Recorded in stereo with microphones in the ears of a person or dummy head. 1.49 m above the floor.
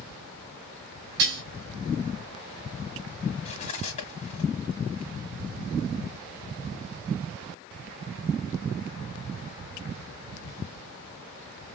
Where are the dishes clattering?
60° right (ahead or behind), 1.7 m.